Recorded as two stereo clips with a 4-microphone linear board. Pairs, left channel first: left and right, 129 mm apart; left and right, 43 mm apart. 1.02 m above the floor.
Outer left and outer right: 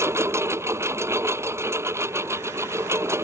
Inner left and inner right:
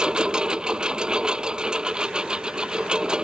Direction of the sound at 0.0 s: 20° right (ahead or behind).